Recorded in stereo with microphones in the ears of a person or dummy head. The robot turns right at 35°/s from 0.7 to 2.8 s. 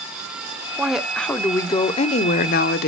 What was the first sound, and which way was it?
A woman speaking, 5° right.